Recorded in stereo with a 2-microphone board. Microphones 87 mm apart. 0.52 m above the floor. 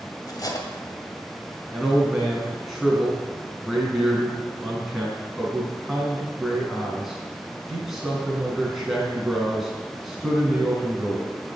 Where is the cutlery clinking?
45° left (ahead or behind), 1.9 m.